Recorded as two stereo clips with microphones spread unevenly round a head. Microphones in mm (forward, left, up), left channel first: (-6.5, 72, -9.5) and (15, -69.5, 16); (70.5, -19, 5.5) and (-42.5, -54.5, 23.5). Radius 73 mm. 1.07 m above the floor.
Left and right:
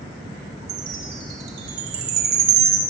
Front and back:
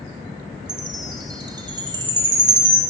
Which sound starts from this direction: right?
A chime, at 0.7 s.